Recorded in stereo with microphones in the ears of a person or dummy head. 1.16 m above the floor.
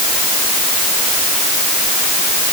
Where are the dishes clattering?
No dishes clattering in this recording.